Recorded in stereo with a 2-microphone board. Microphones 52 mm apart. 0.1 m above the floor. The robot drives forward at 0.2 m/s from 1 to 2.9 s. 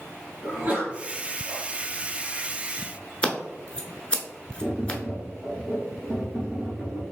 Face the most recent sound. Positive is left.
turn(degrees=-15)  # may be behind; listen again after turning